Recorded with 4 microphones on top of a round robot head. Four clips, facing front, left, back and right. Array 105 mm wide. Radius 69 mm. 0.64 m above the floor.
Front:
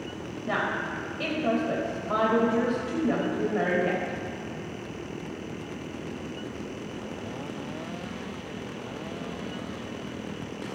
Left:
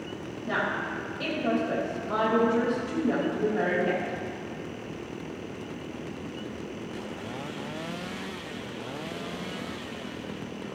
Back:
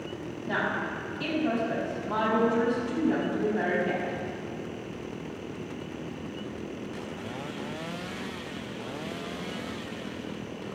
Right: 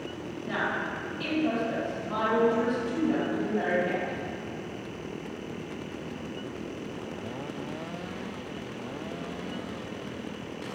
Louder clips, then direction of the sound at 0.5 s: Left 1 dB, front 1 dB; 20° left.